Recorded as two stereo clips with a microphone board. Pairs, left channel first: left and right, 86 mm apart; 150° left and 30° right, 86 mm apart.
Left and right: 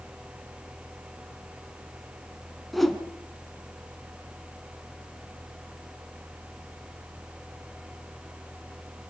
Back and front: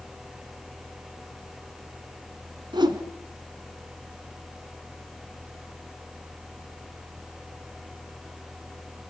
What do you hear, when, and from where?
2.7 s a whoosh: straight ahead, 1.5 m